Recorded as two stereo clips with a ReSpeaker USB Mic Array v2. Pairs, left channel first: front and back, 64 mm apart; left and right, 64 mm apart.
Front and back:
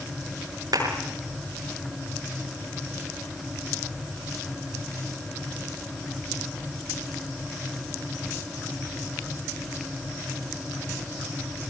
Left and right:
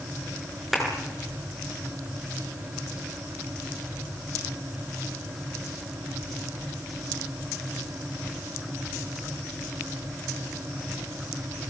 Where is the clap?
175° left, 7 m.